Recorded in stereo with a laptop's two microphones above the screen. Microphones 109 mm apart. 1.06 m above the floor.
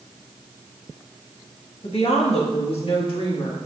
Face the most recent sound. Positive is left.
turn(degrees=45)  # may be behind; listen again after turning